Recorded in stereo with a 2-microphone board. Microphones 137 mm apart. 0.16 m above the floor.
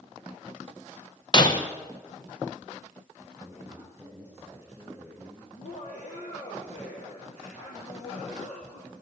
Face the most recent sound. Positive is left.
turn(degrees=65)  # may be behind; listen again after turning